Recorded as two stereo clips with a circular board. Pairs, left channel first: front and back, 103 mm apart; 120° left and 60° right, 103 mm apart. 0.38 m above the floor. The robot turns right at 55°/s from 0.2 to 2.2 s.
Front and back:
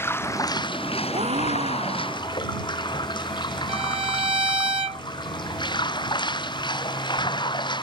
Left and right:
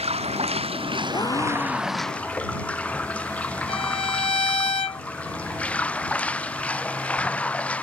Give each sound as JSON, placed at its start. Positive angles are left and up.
{"t": 0.0, "sound": "running water", "azimuth_deg": -65}
{"t": 1.1, "sound": "a gasp", "azimuth_deg": 170}
{"t": 3.7, "sound": "a violin", "azimuth_deg": 150}